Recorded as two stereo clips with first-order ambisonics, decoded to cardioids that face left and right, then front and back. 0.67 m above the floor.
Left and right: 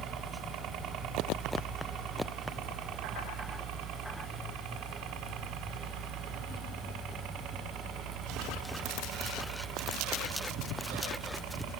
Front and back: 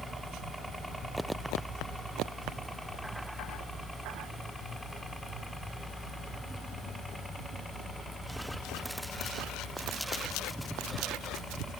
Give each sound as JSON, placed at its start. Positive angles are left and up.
{"t": 0.0, "sound": "a helicopter", "azimuth_deg": -95}